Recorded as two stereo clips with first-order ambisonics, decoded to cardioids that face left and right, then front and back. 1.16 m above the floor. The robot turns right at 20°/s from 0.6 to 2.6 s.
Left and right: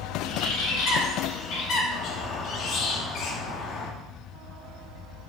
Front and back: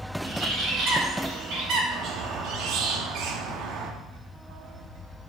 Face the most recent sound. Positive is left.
turn(degrees=140)